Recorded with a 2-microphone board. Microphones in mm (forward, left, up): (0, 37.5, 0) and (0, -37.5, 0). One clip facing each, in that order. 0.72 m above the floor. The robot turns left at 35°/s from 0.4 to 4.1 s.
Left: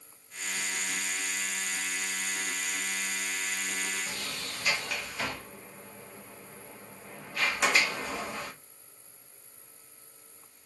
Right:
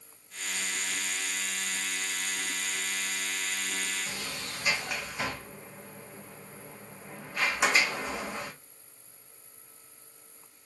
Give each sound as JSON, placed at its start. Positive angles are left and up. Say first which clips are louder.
{"t": 4.1, "sound": "a sliding door", "louder": "even", "side_deg": -15, "distance_m": 0.6}